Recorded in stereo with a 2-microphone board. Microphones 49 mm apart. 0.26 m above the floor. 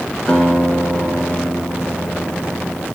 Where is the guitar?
20° left (ahead or behind), 3 m.